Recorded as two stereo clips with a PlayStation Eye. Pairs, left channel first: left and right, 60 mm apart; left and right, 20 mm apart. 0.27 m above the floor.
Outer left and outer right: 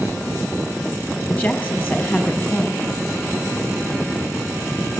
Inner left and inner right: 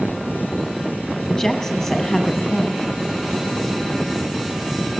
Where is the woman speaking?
20° left (ahead or behind), 5.5 m.